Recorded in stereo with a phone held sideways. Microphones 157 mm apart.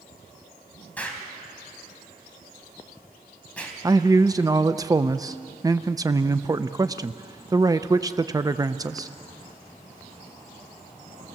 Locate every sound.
1.0 s an explosion: 10° left (ahead or behind), 3.5 m
3.8 s a man speaking: 20° right (ahead or behind), 0.6 m